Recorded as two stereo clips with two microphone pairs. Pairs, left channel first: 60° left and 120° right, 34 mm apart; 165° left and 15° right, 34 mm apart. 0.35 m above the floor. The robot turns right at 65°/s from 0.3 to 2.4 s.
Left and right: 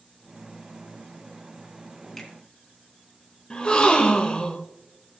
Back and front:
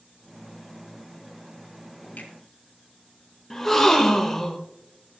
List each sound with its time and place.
2.2 s a finger snap: 130° left, 2 m; by 2.3 s 140° left, 2 m
3.5 s a gasp: 90° left, 1.1 m